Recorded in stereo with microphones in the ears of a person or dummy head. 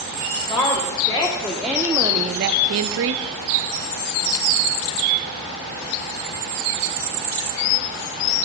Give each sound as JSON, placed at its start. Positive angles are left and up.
{"t": 0.5, "sound": "a woman speaking", "side_deg": 25, "distance_m": 1.5}